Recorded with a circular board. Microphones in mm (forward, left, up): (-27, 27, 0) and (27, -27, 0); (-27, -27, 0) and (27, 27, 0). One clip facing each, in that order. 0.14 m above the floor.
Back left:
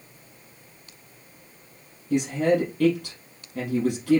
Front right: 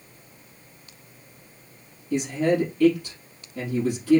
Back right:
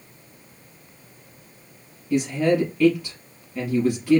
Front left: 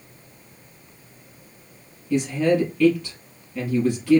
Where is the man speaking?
145° left, 3.5 m.